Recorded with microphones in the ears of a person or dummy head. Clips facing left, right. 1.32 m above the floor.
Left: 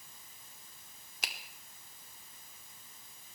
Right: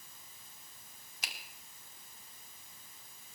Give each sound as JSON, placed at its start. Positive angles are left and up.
{"t": 1.2, "sound": "a finger snap", "side_deg": 55, "distance_m": 2.5}